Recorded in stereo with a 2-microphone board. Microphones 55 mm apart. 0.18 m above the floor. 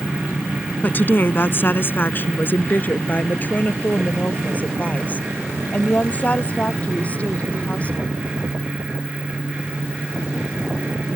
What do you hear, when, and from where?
0.8 s a woman speaking: 35° left (ahead or behind); by 8.1 s 25° left (ahead or behind)